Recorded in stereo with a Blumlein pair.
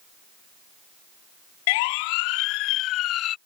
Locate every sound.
1.7 s a siren: 50° left; by 3.4 s 35° left